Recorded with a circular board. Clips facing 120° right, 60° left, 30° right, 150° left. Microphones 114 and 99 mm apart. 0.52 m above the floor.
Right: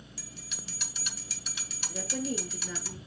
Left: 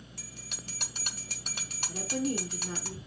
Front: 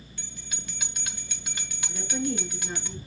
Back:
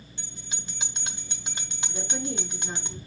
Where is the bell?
90° left, 1.4 m.